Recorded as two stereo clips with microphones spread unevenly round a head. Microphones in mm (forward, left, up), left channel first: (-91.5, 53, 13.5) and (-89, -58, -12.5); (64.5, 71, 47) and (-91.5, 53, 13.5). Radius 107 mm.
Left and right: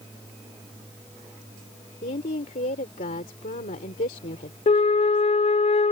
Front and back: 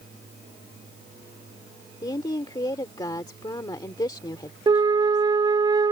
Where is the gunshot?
I don't hear a gunshot.